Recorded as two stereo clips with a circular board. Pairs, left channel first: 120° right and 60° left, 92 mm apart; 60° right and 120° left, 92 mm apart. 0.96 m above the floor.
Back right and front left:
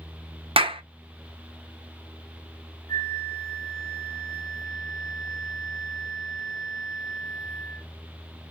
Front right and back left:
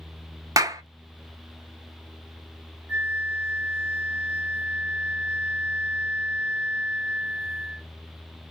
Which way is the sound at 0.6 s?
70° left.